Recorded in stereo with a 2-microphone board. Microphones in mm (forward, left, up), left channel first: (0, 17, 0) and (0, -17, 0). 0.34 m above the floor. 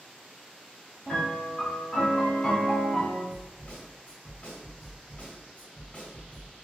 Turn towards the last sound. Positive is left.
turn(degrees=40)  # may be behind; listen again after turning